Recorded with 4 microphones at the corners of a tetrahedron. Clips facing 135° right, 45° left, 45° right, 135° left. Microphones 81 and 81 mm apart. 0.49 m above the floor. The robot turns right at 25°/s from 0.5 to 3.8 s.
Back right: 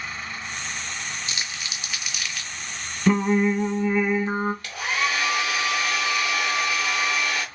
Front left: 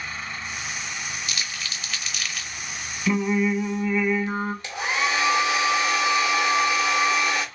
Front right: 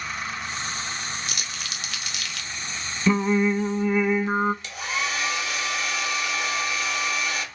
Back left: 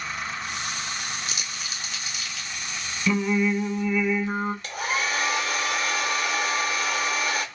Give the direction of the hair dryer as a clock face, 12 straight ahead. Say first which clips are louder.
Front left 1 dB, back left 2 dB; 8 o'clock.